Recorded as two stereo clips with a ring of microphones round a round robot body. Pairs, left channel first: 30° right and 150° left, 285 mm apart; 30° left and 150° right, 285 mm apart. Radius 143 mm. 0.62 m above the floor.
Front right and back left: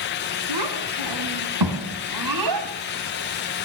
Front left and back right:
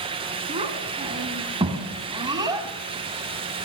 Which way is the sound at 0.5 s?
140° left.